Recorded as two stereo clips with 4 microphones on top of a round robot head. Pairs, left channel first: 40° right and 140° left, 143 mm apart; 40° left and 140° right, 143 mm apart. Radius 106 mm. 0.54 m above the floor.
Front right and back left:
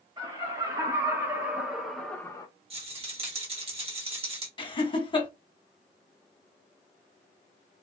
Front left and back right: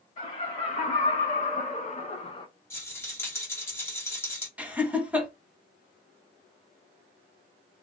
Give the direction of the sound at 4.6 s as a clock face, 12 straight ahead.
2 o'clock.